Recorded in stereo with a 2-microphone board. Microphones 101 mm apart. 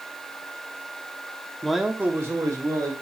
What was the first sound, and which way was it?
A man speaking, 5° left (ahead or behind).